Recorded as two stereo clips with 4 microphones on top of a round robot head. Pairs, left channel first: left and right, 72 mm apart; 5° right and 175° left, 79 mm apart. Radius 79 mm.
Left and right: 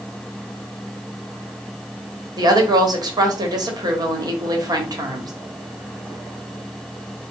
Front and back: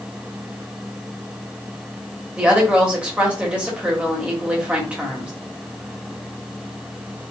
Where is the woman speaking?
110° right, 1.2 m.